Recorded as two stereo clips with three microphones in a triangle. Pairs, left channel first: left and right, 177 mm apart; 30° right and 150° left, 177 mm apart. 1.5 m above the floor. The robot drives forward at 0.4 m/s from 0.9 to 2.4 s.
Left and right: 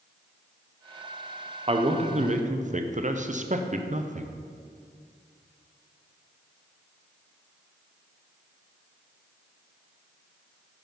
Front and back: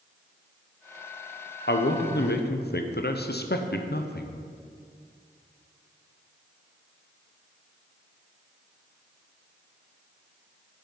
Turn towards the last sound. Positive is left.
turn(degrees=-45)